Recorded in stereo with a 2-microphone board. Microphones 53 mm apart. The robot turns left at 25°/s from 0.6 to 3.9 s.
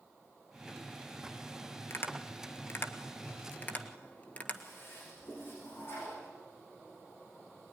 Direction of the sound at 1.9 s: 50° left (ahead or behind).